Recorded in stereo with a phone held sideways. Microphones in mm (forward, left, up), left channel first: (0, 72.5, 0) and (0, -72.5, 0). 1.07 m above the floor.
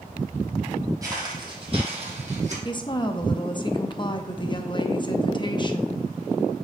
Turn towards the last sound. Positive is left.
turn(degrees=35)  # may be behind; listen again after turning